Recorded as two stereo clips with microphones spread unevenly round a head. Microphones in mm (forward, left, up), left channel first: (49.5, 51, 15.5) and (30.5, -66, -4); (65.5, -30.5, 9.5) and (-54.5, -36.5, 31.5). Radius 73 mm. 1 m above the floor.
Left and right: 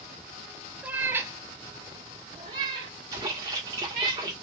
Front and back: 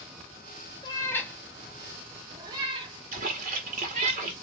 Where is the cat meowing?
10° right, 0.8 m; by 4.1 s 160° right, 2 m.